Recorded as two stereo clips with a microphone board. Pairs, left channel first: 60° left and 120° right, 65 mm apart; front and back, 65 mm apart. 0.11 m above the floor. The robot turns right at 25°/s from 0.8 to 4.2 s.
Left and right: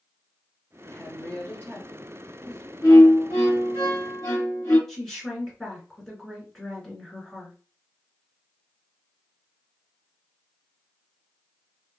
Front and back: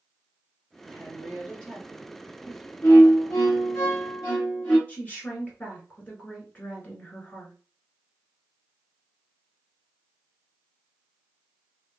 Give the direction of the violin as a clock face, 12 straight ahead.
11 o'clock.